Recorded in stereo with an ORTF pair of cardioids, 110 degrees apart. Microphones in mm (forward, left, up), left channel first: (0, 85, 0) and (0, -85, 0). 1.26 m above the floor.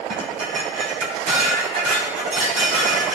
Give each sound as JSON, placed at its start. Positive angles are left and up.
{"t": 0.1, "sound": "dishes clattering", "azimuth_deg": -50, "distance_m": 2.5}